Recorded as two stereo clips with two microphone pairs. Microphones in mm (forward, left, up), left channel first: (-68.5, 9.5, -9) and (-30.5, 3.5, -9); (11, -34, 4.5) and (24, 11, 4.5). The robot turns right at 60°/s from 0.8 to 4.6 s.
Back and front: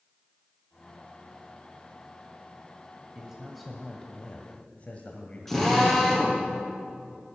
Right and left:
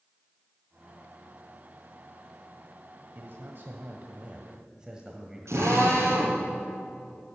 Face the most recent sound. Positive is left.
turn(degrees=90)